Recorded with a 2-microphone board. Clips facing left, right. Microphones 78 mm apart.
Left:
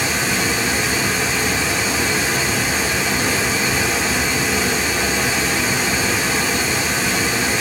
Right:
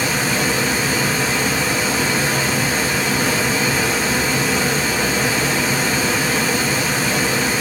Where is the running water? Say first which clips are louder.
Right 1 dB; 50° right (ahead or behind), 1.2 m.